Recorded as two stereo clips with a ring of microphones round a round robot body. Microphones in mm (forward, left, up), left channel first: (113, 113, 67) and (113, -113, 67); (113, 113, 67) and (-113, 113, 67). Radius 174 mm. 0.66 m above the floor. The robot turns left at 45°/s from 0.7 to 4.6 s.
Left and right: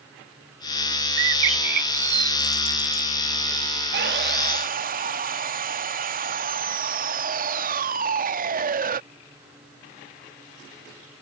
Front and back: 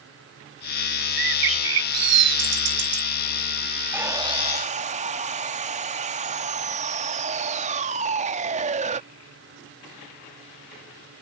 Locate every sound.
1.2 s a bird: 120° right; by 3.1 s 155° left
3.9 s sawing: 100° right; by 9.0 s 130° right